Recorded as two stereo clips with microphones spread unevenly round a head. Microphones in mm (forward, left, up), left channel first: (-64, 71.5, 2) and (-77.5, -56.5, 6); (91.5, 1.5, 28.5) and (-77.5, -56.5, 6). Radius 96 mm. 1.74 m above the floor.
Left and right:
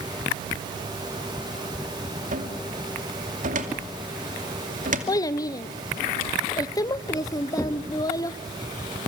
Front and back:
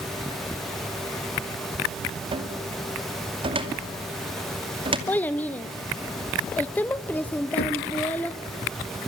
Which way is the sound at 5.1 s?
70° left.